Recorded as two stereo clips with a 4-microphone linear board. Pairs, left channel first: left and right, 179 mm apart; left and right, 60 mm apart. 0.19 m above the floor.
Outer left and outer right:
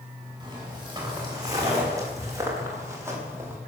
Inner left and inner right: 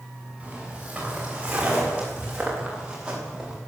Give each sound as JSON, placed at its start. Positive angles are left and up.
{"t": 0.4, "sound": "footsteps", "side_deg": -20, "distance_m": 8.0}